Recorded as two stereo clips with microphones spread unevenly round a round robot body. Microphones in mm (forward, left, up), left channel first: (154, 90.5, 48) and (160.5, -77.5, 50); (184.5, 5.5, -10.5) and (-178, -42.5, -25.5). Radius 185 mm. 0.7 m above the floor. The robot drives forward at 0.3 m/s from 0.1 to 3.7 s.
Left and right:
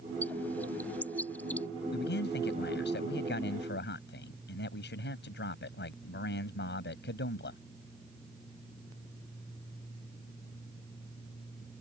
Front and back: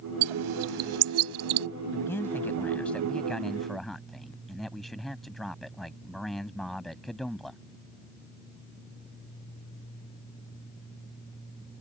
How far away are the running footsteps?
I don't hear running footsteps.